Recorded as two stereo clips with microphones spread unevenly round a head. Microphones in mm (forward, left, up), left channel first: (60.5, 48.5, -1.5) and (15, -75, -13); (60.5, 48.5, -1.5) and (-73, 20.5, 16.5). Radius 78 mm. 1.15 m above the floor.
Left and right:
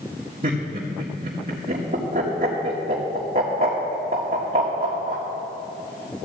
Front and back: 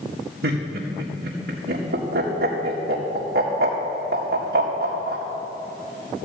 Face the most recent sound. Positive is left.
turn(degrees=-155)